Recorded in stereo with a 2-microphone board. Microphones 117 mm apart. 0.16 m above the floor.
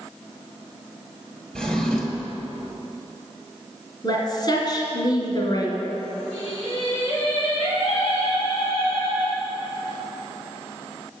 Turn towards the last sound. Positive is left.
turn(degrees=60)  # may be behind; listen again after turning